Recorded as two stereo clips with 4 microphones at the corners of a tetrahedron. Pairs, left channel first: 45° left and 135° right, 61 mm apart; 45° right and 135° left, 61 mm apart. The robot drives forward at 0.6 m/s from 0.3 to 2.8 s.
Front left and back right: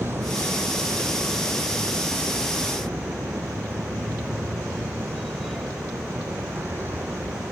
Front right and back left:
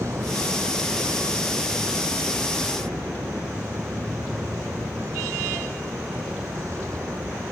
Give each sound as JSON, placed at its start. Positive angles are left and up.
{"t": 0.0, "sound": "a vehicle", "azimuth_deg": 175}